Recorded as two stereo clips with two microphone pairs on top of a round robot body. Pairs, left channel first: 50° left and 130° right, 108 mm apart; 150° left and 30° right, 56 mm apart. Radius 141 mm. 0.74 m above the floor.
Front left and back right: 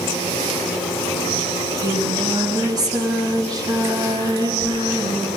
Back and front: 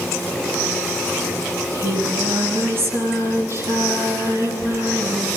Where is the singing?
80° right, 8 m.